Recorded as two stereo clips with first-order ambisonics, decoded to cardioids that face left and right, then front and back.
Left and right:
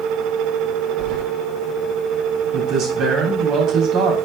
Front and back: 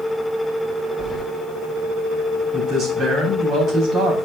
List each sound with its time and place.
1.0 s keys jangling: 75° right, 1.0 m
2.5 s a man speaking: 125° right, 2.5 m